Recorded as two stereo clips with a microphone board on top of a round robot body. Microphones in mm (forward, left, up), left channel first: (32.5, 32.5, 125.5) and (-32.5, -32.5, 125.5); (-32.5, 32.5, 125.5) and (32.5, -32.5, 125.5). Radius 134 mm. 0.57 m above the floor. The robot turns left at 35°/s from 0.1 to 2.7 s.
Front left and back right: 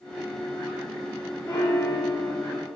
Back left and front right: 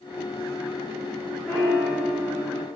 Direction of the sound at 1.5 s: 95° left.